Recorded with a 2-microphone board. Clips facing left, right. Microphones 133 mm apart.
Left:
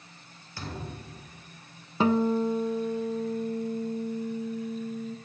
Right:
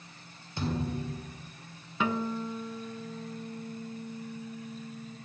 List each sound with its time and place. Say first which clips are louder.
0.6 s a thud: right 7 dB; 20° right (ahead or behind), 1.6 m
2.0 s a guitar: left 8 dB; 35° left (ahead or behind), 0.6 m